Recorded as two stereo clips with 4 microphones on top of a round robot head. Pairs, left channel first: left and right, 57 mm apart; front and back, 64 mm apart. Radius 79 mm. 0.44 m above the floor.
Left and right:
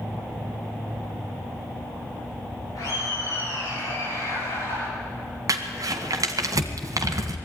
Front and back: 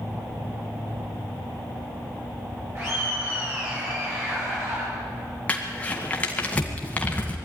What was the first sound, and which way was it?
Laughter, 130° left.